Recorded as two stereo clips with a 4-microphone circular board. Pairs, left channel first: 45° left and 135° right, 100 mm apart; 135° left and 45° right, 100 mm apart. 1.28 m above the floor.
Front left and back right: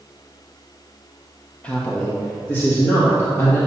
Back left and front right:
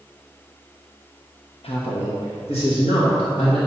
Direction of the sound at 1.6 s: 125° left.